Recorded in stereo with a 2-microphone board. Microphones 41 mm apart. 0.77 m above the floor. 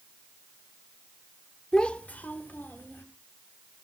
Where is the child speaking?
20° left (ahead or behind), 0.9 m; by 3.0 s 60° left (ahead or behind), 2.5 m.